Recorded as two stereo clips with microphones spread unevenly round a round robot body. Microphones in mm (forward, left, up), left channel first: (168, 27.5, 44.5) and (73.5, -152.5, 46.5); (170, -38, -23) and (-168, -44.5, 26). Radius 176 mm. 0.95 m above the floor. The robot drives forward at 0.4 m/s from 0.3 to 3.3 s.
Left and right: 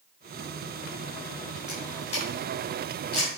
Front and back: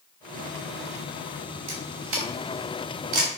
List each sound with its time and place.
1.7 s a camera shutter: 130° left, 3.5 m; by 3.3 s 140° left, 4 m